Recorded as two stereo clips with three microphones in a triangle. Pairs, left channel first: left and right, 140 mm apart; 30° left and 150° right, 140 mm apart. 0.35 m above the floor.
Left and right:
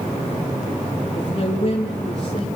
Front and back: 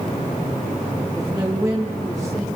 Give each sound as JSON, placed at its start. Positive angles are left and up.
{"t": 1.1, "sound": "a man speaking", "azimuth_deg": 135, "distance_m": 7.0}